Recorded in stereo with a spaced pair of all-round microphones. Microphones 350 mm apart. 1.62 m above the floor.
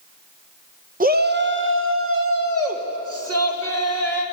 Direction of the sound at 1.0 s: 25° right (ahead or behind).